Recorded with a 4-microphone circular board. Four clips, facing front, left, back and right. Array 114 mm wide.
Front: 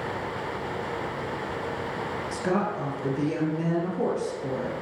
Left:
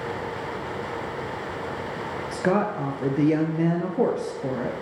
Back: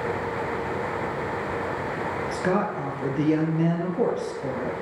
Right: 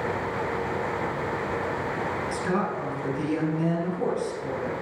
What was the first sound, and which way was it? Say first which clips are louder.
A woman speaking: left 7 dB, back 1 dB; 110° left.